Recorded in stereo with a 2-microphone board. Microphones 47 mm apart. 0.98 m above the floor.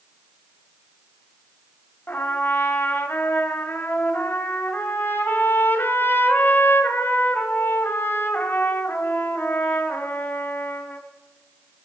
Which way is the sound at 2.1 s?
50° left (ahead or behind).